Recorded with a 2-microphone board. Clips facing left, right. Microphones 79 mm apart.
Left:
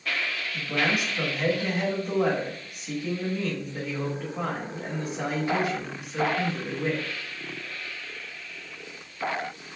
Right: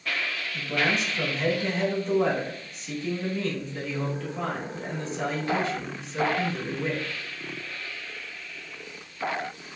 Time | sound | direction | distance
0.5 | a man speaking | 15° left (ahead or behind) | 1.0 m